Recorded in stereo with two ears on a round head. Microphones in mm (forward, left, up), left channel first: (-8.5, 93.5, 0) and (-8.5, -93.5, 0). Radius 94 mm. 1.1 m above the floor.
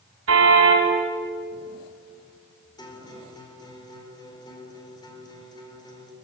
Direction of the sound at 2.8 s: 20° left (ahead or behind).